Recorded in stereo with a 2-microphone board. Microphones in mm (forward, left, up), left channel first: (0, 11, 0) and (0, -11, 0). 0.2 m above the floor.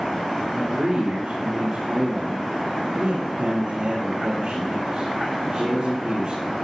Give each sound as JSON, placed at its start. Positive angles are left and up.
{"t": 0.5, "sound": "a man speaking", "side_deg": -40, "distance_m": 5.0}